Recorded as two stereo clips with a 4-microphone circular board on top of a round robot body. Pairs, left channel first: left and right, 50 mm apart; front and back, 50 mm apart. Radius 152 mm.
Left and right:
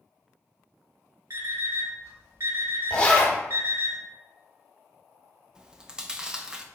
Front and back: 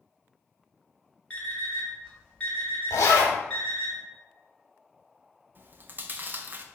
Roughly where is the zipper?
Ahead.